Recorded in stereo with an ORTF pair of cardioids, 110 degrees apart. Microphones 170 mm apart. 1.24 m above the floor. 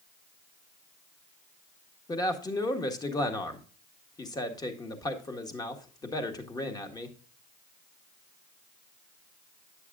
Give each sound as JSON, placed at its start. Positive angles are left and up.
{"t": 2.1, "sound": "a man speaking", "azimuth_deg": 20, "distance_m": 1.5}